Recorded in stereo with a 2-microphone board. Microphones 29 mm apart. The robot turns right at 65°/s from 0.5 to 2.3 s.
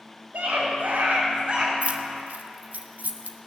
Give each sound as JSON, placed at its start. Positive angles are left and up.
{"t": 0.3, "sound": "a scream", "azimuth_deg": -105, "distance_m": 5.0}
{"t": 1.8, "sound": "keys jangling", "side_deg": -45, "distance_m": 1.0}